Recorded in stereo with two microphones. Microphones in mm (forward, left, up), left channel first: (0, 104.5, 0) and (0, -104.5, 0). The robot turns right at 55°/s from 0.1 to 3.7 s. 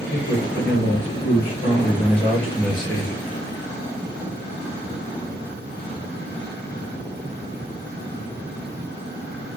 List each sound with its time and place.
0.1 s a man speaking: 55° left, 3 m; by 3.2 s 135° right, 3 m